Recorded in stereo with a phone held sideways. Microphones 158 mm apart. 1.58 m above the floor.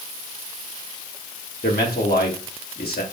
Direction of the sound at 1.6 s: 80° left.